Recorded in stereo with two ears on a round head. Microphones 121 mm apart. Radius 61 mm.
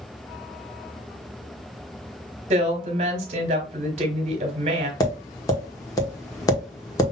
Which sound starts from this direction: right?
A woman speaking, at 2.5 s.